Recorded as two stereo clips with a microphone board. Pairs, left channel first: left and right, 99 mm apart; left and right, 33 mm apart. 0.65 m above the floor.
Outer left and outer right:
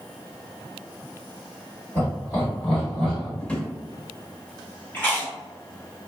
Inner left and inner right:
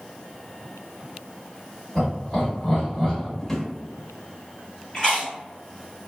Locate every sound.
1.9 s laughter: 25° left (ahead or behind), 1.7 m; by 3.3 s 5° right (ahead or behind), 1.8 m
3.4 s a drawer: 15° left (ahead or behind), 0.5 m
4.9 s chewing: 15° left (ahead or behind), 1.7 m